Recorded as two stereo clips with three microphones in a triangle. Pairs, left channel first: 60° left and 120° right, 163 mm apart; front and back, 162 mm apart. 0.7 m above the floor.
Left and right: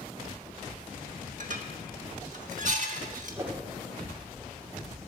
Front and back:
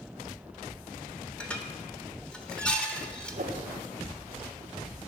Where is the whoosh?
170° left, 1.6 m.